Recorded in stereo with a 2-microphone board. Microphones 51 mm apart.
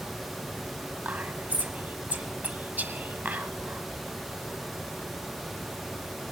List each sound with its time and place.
1.1 s whispering: 40° right (ahead or behind), 1.3 m